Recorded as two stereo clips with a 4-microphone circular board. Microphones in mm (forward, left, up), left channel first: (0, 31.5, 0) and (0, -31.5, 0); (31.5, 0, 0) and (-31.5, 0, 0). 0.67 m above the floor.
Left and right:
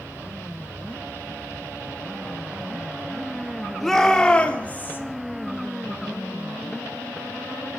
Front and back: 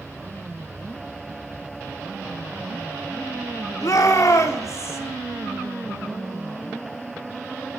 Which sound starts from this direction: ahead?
A shout, at 3.8 s.